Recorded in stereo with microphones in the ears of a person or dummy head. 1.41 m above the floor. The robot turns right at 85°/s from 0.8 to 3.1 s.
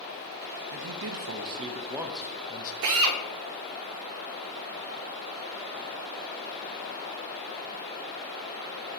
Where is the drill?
60° right (ahead or behind), 0.7 m; by 3.2 s 75° right (ahead or behind), 0.7 m.